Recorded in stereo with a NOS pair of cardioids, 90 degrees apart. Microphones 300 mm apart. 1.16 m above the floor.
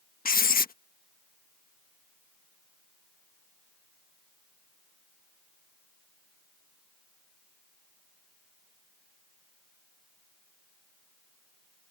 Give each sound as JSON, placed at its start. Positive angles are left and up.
{"t": 0.2, "sound": "writing", "azimuth_deg": 30}